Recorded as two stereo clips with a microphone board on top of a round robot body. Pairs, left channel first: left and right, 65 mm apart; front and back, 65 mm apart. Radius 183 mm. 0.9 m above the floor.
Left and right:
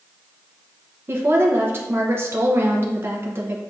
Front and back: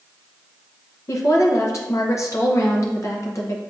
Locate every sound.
1.1 s a woman speaking: 40° right, 0.7 m